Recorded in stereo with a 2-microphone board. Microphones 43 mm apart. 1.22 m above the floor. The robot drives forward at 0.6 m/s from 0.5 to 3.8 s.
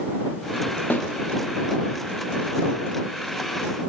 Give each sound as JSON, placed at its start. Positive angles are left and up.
{"t": 0.9, "sound": "a snare drum", "side_deg": 50, "distance_m": 1.1}